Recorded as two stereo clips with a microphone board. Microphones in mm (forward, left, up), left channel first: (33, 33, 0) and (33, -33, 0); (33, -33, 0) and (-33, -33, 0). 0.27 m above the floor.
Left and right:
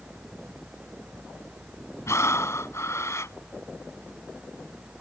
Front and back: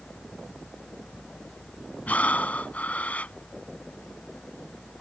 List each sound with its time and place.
2.1 s breathing: 60° left